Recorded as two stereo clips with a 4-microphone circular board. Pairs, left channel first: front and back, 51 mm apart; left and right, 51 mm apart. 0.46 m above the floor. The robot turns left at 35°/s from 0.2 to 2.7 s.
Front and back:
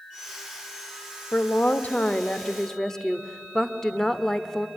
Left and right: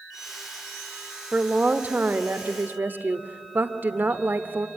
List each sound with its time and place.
1.3 s a woman speaking: 30° right, 1.2 m; by 4.7 s 80° right, 1.2 m